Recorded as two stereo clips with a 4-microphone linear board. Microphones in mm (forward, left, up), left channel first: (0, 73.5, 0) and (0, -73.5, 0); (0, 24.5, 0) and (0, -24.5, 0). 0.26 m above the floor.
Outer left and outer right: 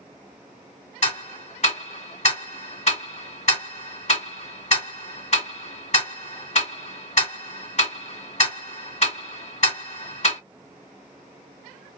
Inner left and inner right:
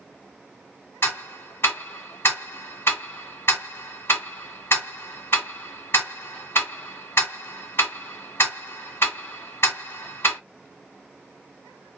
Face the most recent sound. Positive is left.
turn(degrees=50)  # may be behind; listen again after turning